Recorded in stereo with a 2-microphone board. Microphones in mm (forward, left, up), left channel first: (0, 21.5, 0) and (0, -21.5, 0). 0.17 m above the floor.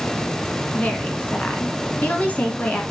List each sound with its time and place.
0.7 s a woman speaking: 35° left (ahead or behind), 1.5 m